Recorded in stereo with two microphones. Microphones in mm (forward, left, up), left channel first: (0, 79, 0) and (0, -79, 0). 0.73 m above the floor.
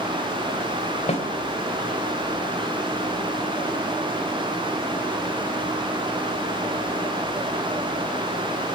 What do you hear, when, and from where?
1.1 s a snare drum: 45° left (ahead or behind), 2.5 m